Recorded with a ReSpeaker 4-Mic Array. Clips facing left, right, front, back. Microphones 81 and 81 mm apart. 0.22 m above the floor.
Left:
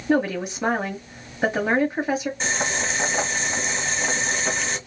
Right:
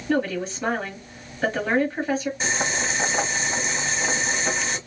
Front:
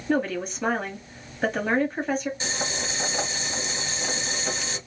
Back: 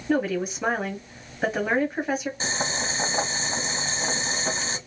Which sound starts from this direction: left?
A woman speaking, at 0.1 s.